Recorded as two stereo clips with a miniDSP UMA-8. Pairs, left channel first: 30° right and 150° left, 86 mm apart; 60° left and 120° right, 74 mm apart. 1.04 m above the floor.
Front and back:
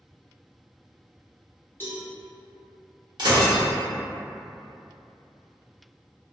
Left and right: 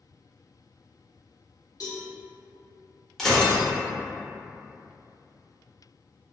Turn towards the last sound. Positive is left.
turn(degrees=145)